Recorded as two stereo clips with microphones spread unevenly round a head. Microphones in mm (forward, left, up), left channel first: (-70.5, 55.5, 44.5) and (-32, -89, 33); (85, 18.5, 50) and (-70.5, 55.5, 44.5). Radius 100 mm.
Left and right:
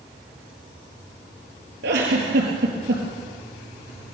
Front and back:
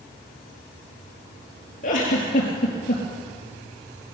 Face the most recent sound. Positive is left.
turn(degrees=-60)